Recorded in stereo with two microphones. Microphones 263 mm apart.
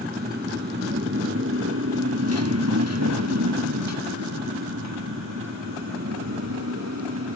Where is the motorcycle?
35° right (ahead or behind); by 7.4 s 70° right (ahead or behind).